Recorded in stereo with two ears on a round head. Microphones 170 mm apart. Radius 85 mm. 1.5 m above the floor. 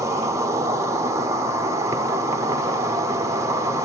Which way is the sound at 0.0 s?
15° right (ahead or behind).